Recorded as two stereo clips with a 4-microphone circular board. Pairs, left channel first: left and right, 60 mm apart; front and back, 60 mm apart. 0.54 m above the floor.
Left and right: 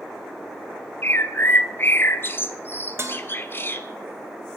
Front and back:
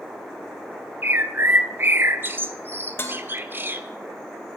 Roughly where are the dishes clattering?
Ahead right.